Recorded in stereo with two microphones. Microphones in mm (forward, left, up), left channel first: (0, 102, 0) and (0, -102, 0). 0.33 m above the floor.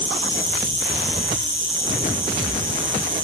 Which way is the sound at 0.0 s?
70° right (ahead or behind).